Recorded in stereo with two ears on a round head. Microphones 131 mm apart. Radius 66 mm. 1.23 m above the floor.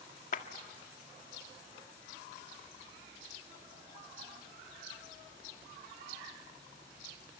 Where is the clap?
60° left (ahead or behind), 1.7 m.